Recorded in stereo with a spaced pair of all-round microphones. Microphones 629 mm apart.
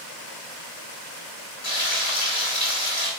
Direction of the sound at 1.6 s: 75° left (ahead or behind).